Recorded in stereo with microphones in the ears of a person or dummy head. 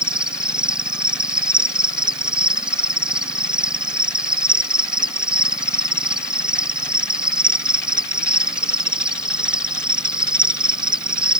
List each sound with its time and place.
0.0 s an insect: 5° right (ahead or behind)